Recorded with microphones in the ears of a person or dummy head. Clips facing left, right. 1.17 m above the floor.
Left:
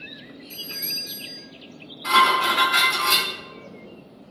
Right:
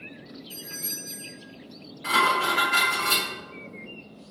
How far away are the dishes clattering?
About 1.9 m.